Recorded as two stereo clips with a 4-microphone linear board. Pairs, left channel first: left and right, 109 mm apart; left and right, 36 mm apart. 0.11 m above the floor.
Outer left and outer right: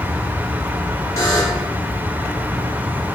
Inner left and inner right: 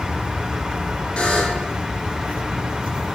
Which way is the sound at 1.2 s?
30° left (ahead or behind).